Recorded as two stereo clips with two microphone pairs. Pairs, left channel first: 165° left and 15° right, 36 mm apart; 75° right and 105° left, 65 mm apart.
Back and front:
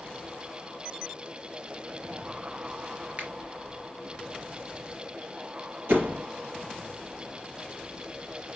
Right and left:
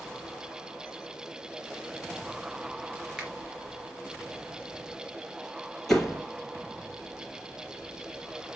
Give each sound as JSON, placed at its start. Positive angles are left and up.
{"t": 3.2, "sound": "a finger snap", "azimuth_deg": 25, "distance_m": 3.5}
{"t": 5.9, "sound": "a door slam", "azimuth_deg": 10, "distance_m": 3.0}